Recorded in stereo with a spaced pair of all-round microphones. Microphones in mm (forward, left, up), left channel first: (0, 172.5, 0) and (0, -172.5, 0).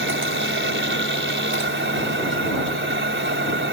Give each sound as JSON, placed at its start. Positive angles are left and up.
{"t": 0.0, "sound": "a machine running", "side_deg": -35}